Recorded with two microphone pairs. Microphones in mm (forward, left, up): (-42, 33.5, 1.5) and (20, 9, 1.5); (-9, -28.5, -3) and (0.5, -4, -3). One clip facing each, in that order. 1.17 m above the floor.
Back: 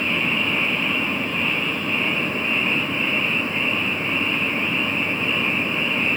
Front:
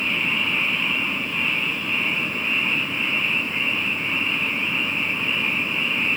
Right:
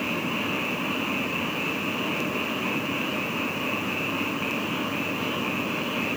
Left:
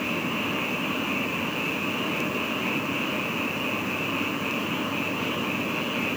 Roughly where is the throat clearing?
I don't hear throat clearing.